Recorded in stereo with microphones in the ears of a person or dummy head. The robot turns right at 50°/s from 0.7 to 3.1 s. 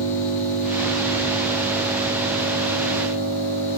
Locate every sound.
0.0 s an engine running: 125° left, 1.8 m; by 3.8 s 115° right, 1.8 m